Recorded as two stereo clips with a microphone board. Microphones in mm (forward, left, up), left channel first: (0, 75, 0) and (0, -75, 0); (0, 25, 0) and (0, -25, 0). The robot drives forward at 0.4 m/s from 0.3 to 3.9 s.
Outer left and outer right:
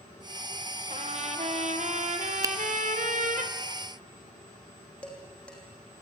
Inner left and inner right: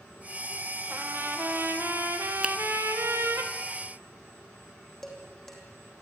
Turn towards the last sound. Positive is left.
turn(degrees=10)  # may be behind; listen again after turning